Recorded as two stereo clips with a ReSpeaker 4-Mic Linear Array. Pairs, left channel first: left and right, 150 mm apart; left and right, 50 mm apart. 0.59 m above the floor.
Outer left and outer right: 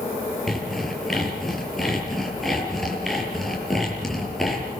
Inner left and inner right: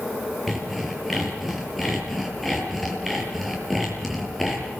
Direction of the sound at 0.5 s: Centre (ahead or behind).